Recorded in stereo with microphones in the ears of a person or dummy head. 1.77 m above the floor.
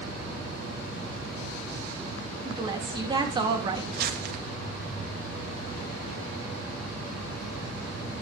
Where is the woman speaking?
25° right (ahead or behind), 3.5 m.